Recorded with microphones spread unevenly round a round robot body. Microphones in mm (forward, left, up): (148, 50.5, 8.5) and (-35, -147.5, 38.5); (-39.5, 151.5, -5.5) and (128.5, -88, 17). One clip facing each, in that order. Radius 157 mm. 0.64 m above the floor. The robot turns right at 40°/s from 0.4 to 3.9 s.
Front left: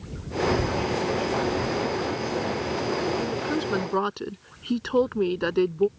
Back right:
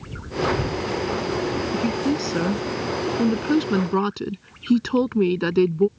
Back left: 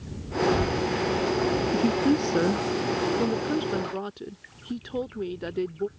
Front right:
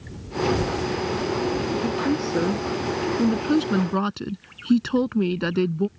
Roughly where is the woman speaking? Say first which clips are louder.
Back right 5 dB, back left 1 dB; behind.